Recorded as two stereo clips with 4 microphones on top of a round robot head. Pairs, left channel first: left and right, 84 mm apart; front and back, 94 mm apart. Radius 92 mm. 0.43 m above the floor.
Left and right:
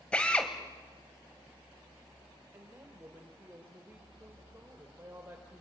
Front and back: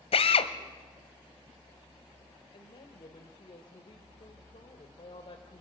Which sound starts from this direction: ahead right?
A woman speaking, at 2.5 s.